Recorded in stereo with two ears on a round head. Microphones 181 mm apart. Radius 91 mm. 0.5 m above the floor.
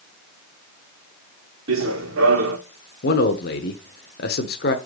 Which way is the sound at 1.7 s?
70° right (ahead or behind).